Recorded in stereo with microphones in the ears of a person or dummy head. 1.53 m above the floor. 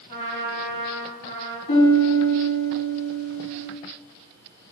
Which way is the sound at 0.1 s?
50° left (ahead or behind).